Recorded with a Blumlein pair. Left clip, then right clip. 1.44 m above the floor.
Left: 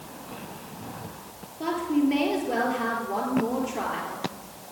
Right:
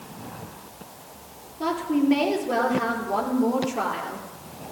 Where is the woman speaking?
10° right, 3.5 m.